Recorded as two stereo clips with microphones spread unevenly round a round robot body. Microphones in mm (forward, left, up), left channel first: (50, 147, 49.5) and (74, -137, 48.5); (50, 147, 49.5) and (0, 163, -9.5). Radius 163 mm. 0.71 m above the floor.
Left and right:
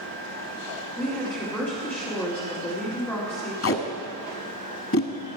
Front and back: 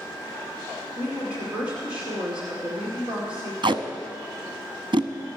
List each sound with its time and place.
1.0 s a woman speaking: straight behind, 2 m
3.6 s tape being pulled: 140° left, 0.9 m